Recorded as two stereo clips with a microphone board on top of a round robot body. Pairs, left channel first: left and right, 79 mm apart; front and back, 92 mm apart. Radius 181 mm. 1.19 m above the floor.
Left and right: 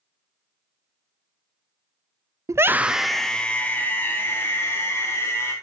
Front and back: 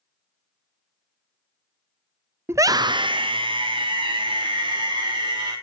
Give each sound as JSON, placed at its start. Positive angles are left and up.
{"t": 2.5, "sound": "a scream", "azimuth_deg": -125, "distance_m": 0.5}